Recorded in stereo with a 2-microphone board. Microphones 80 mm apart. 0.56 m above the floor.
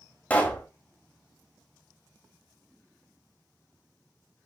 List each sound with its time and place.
0.3 s a pop: 20° left (ahead or behind), 1.0 m